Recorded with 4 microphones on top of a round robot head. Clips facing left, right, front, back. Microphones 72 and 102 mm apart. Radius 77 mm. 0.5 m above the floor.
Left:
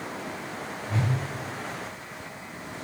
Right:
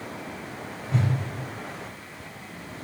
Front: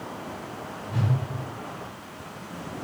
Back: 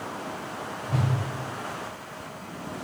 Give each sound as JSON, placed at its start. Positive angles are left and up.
{"t": 0.9, "sound": "a whoosh", "azimuth_deg": 180, "distance_m": 3.0}